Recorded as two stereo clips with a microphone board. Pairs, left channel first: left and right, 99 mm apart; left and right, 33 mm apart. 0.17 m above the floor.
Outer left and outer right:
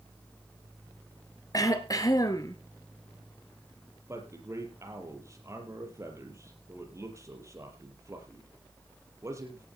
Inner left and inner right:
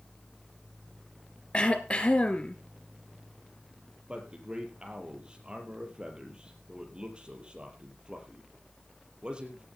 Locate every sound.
1.5 s throat clearing: 40° left (ahead or behind), 2.0 m
4.1 s a man speaking: 30° right (ahead or behind), 5 m